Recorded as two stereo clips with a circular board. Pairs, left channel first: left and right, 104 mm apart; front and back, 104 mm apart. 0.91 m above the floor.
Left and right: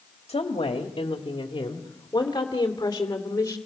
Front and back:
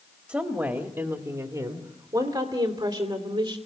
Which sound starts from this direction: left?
A woman speaking, at 0.3 s.